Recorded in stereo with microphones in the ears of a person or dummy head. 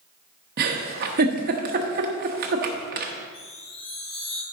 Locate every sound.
0.6 s a giggle: 45° right (ahead or behind), 1.1 m
3.3 s a chime: 30° left (ahead or behind), 2.5 m